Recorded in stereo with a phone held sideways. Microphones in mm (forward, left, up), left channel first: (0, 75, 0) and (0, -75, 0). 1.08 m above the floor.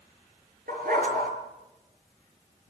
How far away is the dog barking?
About 6 m.